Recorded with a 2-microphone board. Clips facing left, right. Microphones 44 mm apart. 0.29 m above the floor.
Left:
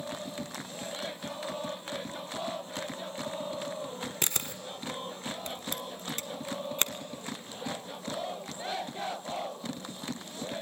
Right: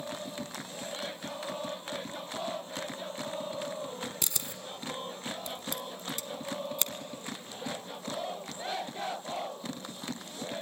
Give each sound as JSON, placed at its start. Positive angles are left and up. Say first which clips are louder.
{"t": 4.2, "sound": "a camera shutter", "louder": "left 3 dB", "side_deg": 45, "distance_m": 0.8}